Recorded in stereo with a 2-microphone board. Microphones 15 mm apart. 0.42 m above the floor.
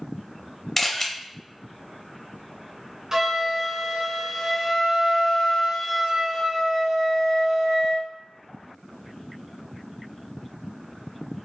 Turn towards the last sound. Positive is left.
turn(degrees=-35)  # may be behind; listen again after turning